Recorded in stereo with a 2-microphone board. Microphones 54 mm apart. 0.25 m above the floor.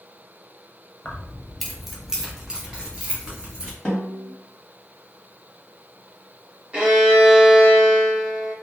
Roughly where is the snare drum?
Centre.